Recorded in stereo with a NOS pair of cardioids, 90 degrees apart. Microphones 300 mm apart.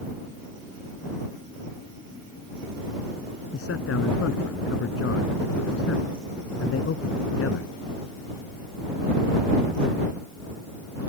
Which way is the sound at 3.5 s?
55° left.